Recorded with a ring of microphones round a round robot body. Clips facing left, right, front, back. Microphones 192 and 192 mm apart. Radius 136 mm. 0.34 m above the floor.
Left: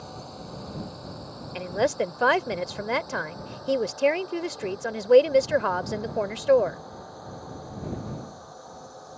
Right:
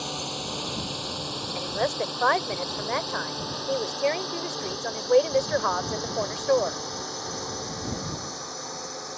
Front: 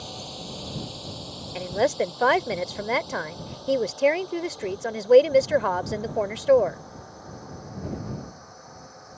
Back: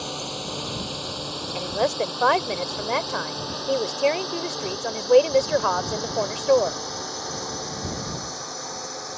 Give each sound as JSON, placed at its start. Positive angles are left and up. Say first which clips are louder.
{"t": 0.0, "sound": "a drone", "louder": "right 6 dB, back 6 dB", "azimuth_deg": -130}
{"t": 1.6, "sound": "a woman speaking", "louder": "left 4 dB, front 1 dB", "azimuth_deg": 65}